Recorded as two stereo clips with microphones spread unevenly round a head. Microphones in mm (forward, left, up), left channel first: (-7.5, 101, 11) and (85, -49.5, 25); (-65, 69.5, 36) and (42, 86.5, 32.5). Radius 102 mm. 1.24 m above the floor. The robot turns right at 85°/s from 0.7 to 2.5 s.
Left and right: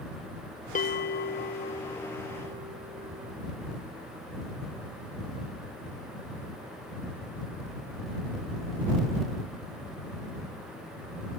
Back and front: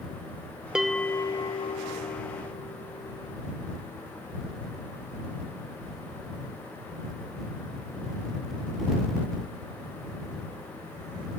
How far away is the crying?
I don't hear crying.